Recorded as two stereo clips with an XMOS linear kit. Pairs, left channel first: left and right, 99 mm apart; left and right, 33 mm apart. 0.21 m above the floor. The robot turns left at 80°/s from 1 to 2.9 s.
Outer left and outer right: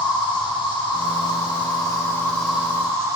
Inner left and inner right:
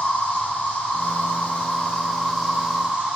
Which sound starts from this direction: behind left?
An insect, at 0.0 s.